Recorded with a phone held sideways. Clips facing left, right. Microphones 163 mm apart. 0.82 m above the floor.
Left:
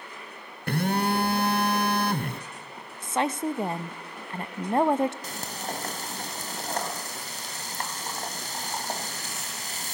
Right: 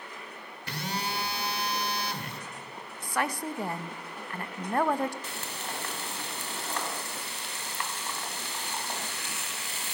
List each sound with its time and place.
0.7 s a phone buzzing: 55° left (ahead or behind), 0.7 m
3.0 s a woman speaking: 25° left (ahead or behind), 0.5 m
5.2 s frying: 40° left (ahead or behind), 2.0 m